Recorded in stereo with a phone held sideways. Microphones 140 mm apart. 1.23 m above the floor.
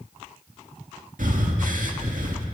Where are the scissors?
No scissors in this recording.